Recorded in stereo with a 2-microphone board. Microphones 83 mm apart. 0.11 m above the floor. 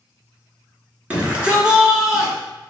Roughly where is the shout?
Centre.